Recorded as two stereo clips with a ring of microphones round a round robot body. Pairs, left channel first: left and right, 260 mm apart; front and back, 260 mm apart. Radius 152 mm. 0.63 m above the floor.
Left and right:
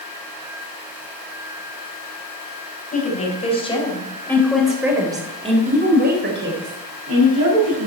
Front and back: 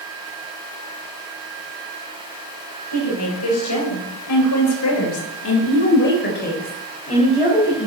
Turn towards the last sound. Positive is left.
turn(degrees=-70)